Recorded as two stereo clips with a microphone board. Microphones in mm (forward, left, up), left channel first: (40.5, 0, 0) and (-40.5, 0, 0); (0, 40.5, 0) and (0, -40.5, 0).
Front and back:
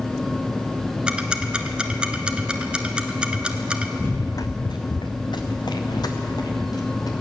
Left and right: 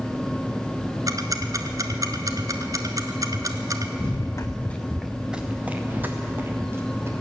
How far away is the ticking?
About 1.0 m.